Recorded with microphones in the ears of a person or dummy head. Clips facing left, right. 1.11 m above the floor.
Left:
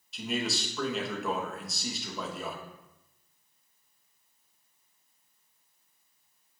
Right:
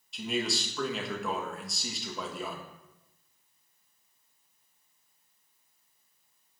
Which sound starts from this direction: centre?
A man speaking, at 0.1 s.